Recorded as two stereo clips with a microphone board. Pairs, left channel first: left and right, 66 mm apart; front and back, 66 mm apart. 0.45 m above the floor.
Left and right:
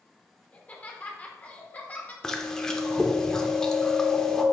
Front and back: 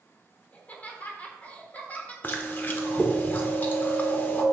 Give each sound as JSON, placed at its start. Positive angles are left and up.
{"t": 0.5, "sound": "laughter", "azimuth_deg": 40, "distance_m": 1.3}
{"t": 2.2, "sound": "chewing", "azimuth_deg": 15, "distance_m": 0.8}